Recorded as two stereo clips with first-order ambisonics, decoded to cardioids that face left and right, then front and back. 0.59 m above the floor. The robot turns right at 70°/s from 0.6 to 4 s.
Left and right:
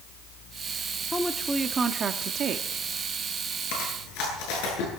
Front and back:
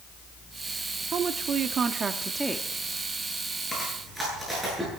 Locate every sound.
1.1 s a woman speaking: 165° left, 1.0 m; by 2.7 s 85° right, 1.0 m
3.7 s chewing: 80° left, 8.5 m; by 4.9 s 100° left, 8.5 m